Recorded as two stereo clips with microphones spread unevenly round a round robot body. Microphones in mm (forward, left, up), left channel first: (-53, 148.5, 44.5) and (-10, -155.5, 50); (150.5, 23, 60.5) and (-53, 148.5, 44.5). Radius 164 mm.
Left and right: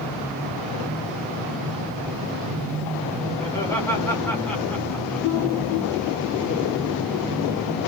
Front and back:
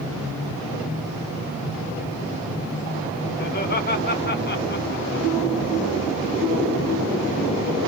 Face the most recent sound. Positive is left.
turn(degrees=10)